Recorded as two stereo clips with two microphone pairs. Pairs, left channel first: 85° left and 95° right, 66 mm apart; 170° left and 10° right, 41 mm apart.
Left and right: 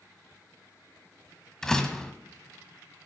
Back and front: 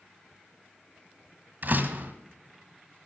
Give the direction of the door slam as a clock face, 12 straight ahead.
12 o'clock.